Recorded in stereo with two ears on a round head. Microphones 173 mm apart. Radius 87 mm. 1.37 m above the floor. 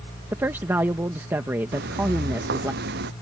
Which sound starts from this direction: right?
Footsteps, at 1.7 s.